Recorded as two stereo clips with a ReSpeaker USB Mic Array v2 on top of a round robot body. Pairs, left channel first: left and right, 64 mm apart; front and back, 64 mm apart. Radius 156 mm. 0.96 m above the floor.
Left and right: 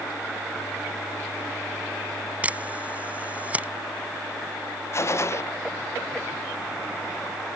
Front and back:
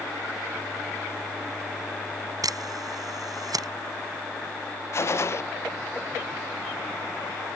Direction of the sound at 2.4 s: 160° right.